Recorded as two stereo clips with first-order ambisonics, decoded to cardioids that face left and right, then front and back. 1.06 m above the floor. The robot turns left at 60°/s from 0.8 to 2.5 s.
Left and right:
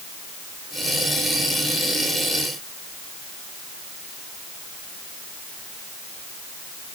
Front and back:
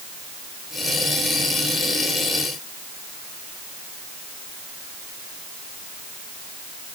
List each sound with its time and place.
Only background noise.